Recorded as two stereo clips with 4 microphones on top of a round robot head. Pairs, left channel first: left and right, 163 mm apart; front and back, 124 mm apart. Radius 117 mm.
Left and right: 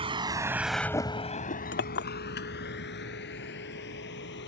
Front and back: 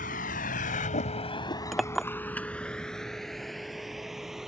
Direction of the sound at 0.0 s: 35° right.